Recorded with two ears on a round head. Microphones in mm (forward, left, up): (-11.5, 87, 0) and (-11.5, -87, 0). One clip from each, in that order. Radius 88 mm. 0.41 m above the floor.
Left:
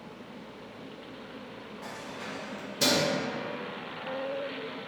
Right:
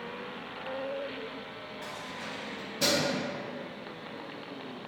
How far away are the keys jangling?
About 0.9 m.